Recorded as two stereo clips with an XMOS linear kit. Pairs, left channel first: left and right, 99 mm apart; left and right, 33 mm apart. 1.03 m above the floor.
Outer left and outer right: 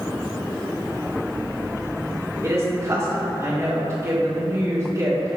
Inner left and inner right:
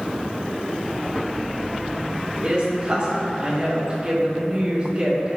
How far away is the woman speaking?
About 1.2 m.